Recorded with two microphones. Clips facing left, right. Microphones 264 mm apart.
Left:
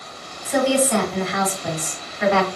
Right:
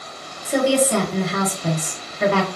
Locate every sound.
0.5 s a woman speaking: 40° right (ahead or behind), 1.1 m